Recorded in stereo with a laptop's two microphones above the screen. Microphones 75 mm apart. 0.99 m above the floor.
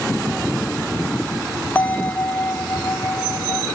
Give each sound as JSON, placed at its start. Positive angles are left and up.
{"t": 1.8, "sound": "a bell", "side_deg": 25}